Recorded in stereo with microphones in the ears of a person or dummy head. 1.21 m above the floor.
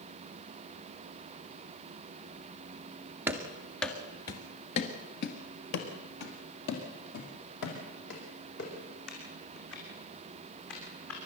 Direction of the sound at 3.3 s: 10° right (ahead or behind).